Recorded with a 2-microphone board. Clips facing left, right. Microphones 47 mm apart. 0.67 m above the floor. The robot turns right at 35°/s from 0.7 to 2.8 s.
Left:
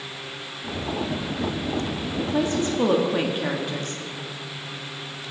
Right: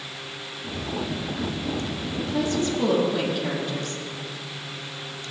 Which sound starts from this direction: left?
A woman speaking, at 2.2 s.